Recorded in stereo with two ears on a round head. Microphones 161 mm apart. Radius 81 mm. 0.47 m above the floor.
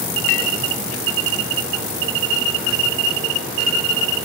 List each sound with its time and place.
0.3 s a clink: 80° left, 2 m